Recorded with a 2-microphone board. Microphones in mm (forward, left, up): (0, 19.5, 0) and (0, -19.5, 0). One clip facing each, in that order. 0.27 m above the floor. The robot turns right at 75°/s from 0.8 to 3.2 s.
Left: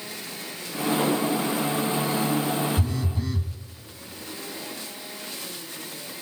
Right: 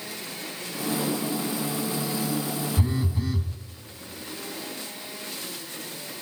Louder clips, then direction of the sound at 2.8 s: Right 1 dB; 35° right.